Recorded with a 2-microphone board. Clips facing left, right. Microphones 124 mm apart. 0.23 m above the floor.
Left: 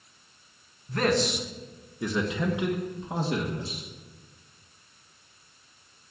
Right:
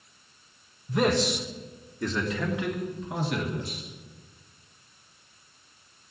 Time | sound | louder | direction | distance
0.9 | a man speaking | right 1 dB | 15° right (ahead or behind) | 2 m